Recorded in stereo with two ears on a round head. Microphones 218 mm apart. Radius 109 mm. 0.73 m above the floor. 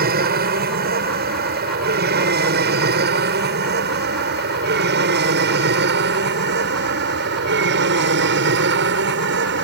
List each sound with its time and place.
0.0 s an aircraft: 40° right (ahead or behind); by 9.6 s 50° right (ahead or behind)